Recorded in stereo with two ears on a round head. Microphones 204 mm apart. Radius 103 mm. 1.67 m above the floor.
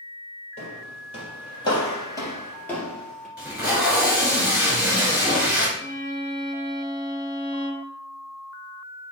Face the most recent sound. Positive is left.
turn(degrees=5)  # may be behind; listen again after turning